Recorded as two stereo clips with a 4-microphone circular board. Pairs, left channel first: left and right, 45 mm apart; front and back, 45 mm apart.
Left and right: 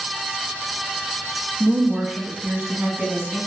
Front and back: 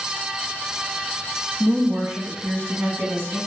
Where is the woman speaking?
170° right, 1.9 m; by 3.4 s 160° right, 2.5 m.